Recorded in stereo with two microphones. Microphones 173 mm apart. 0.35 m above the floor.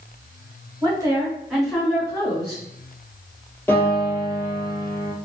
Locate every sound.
0.8 s a woman speaking: 25° right (ahead or behind), 2.0 m; by 2.6 s 40° left (ahead or behind), 1.6 m
3.7 s a piano: 10° left (ahead or behind), 2 m